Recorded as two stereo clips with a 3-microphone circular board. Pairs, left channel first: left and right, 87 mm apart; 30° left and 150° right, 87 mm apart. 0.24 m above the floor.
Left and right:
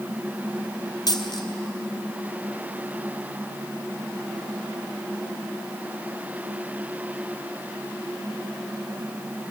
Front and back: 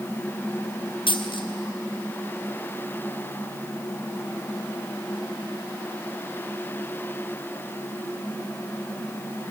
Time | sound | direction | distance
1.1 | a dropped coin | 45° left | 2.5 m